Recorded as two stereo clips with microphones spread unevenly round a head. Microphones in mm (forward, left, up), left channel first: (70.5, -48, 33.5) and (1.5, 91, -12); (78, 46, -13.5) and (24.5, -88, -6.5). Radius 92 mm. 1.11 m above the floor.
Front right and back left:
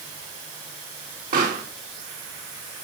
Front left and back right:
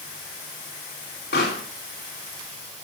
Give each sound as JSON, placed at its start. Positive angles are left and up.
{"t": 1.3, "sound": "a pop", "azimuth_deg": 85, "distance_m": 5.5}